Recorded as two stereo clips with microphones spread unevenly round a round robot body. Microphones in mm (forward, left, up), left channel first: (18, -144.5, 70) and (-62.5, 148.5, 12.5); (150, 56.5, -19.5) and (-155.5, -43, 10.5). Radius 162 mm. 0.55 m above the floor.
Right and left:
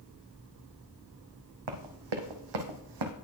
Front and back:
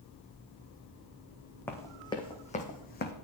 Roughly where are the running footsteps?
Left.